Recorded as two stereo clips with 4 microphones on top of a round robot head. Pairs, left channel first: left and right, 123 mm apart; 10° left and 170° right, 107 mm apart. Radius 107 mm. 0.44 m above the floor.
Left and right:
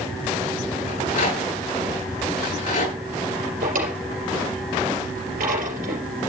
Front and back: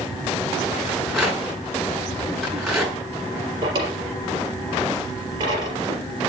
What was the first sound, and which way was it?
A rattle, 105° left.